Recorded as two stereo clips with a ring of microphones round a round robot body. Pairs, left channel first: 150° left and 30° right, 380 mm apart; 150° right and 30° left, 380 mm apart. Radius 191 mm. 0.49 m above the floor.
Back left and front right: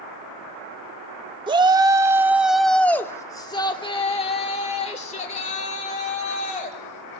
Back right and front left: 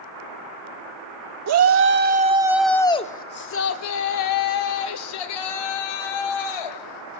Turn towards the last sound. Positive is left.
turn(degrees=-140)